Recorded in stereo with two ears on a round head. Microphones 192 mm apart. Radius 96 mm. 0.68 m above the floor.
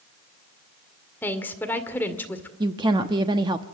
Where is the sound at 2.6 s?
20° right (ahead or behind), 0.9 m.